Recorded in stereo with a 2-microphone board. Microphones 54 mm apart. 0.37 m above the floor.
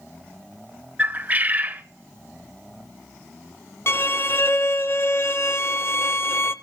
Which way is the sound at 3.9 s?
50° left (ahead or behind).